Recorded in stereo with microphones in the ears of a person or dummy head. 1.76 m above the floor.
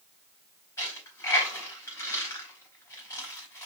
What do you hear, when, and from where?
0.8 s a dropped coin: 20° left (ahead or behind), 3 m